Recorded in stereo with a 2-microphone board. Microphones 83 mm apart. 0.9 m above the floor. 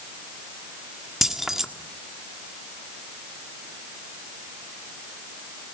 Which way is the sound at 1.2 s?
5° right (ahead or behind).